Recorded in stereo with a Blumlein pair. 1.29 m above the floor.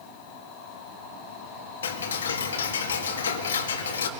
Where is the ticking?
65° left, 1.8 m.